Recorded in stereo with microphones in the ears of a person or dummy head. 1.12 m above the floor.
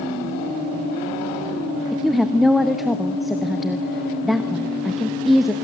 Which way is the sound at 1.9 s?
5° right (ahead or behind).